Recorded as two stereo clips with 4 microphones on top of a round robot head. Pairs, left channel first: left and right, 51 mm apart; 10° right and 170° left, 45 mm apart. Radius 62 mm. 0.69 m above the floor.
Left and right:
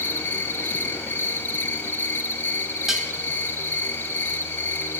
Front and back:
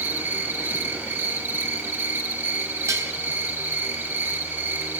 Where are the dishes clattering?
170° right, 2.5 m.